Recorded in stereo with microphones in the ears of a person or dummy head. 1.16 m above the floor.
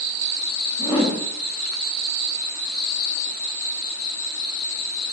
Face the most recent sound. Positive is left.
turn(degrees=25)  # may be behind; listen again after turning